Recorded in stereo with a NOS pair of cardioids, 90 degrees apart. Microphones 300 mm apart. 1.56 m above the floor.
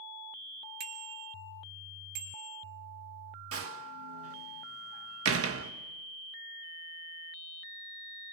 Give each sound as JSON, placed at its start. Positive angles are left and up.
{"t": 0.8, "sound": "a bicycle bell", "azimuth_deg": -55, "distance_m": 2.0}
{"t": 3.5, "sound": "a door slam", "azimuth_deg": -45, "distance_m": 1.6}